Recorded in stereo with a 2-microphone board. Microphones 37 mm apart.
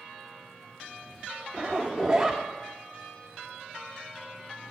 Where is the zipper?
20° right (ahead or behind), 1.0 m.